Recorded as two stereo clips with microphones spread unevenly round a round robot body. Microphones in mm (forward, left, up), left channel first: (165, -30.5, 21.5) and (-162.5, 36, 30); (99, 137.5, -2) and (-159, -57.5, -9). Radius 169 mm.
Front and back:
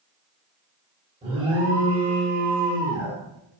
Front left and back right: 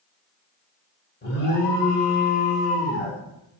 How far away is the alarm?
About 1.2 m.